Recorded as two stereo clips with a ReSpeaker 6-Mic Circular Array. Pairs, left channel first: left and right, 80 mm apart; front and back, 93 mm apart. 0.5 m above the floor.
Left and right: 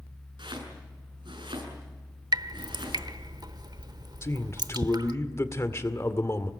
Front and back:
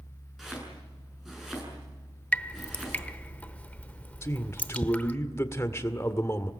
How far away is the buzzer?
I don't hear a buzzer.